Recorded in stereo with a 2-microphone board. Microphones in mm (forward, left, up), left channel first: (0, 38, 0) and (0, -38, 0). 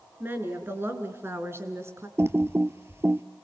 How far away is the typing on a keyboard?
About 0.7 m.